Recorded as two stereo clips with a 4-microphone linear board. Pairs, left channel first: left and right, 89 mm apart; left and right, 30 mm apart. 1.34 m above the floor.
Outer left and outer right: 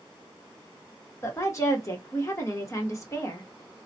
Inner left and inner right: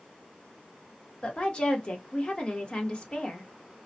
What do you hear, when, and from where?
1.2 s a woman speaking: 35° left (ahead or behind), 1.1 m